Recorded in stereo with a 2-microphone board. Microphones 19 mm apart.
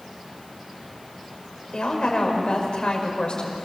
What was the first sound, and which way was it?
A woman speaking, 50° left (ahead or behind).